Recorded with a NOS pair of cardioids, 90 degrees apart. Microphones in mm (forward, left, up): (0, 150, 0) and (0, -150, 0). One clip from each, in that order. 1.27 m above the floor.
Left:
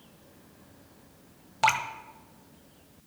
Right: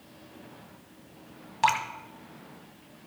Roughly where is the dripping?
Ahead.